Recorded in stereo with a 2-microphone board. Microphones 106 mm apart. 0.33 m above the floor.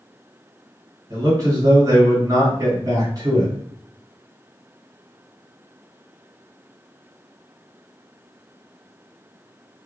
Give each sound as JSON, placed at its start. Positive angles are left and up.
{"t": 1.1, "sound": "a man speaking", "side_deg": -35, "distance_m": 1.7}